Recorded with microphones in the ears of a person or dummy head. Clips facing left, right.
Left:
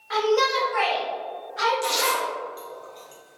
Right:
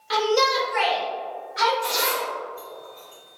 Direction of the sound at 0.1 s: 40° right (ahead or behind).